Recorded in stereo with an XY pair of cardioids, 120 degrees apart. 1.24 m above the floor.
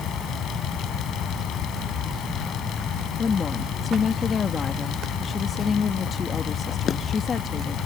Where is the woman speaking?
35° left.